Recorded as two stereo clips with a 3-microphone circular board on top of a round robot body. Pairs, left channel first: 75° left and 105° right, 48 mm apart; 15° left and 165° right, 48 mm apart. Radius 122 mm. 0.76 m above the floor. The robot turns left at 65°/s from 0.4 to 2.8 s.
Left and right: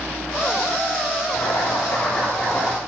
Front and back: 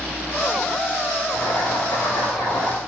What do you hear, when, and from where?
1.3 s boiling: 70° left, 8.5 m; by 2.8 s 25° right, 8.5 m